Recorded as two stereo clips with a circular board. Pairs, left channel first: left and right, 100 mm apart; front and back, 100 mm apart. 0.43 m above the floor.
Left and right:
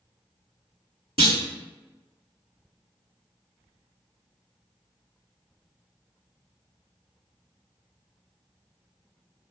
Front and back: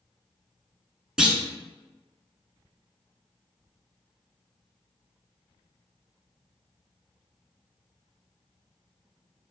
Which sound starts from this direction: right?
A clunk, at 1.2 s.